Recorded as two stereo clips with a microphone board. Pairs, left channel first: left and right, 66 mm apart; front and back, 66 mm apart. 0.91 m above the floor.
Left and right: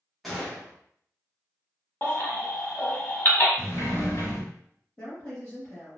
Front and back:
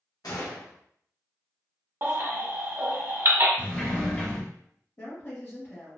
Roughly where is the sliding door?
Ahead left.